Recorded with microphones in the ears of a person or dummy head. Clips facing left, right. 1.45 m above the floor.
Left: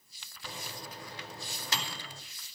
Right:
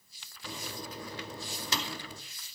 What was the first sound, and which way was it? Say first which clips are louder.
A microwave: right 3 dB; 80° right.